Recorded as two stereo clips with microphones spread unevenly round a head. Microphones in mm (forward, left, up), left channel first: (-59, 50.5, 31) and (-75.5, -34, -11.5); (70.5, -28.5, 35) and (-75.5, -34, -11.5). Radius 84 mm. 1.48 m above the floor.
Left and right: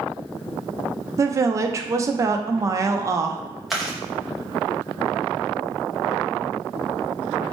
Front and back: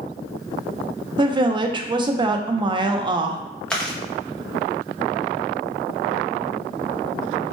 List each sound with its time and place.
1.2 s a woman speaking: 130° right, 0.5 m
3.7 s chewing: 45° left, 0.5 m